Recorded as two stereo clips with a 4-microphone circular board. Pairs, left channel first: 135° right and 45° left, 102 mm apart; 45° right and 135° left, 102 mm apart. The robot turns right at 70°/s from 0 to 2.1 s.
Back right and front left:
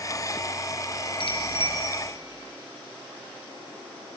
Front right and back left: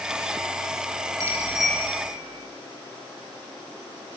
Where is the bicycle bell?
170° right, 5 m; by 1.8 s 130° right, 5 m.